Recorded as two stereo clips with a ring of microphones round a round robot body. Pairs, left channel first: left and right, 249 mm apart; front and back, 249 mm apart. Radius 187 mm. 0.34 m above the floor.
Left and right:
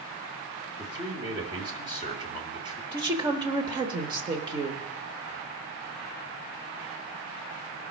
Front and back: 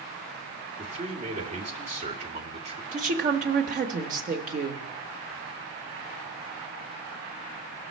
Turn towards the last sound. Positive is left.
turn(degrees=-150)